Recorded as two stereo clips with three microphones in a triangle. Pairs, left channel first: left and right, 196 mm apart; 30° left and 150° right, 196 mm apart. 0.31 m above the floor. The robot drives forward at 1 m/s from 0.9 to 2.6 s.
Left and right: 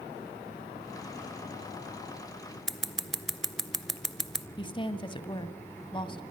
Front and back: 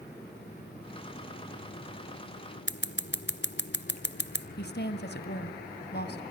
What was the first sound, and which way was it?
Scissors, straight ahead.